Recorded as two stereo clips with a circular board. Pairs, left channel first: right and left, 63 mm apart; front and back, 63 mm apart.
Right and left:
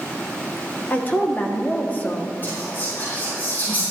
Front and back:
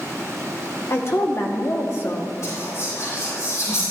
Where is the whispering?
35° right, 4 m.